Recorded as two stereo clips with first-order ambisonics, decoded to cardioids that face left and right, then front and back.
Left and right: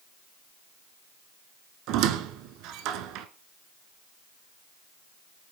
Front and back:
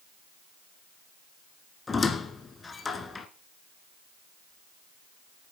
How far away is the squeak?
About 1.5 m.